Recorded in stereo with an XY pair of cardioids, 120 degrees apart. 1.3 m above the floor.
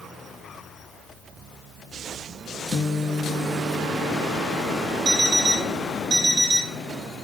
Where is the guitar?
45° left, 0.8 m.